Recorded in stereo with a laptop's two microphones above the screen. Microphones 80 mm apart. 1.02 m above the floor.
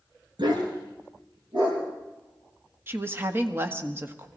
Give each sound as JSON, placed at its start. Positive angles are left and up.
{"t": 0.4, "sound": "a dog barking", "side_deg": -75, "distance_m": 3.5}
{"t": 2.9, "sound": "a woman speaking", "side_deg": -30, "distance_m": 1.4}